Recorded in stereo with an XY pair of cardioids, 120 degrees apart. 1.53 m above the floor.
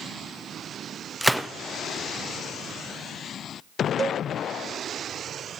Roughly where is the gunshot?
Ahead.